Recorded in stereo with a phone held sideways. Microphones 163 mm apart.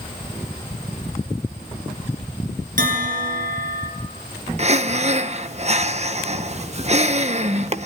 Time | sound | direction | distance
2.8 | a bell | 55° right (ahead or behind) | 6.5 m
4.6 | breathing | 40° right (ahead or behind) | 0.7 m